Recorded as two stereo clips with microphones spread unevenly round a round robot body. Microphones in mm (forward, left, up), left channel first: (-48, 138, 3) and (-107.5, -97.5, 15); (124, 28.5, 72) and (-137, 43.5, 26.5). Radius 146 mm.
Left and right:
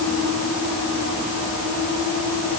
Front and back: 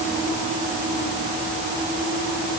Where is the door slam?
I don't hear a door slam.